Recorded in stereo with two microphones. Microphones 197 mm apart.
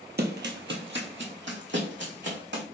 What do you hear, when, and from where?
0.2 s running footsteps: 55° right (ahead or behind), 0.6 m; by 2.6 s 65° right (ahead or behind), 1.6 m